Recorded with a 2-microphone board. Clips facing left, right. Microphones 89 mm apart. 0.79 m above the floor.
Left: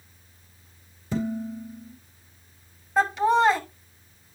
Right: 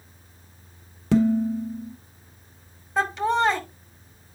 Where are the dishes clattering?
75° right (ahead or behind), 1.4 m.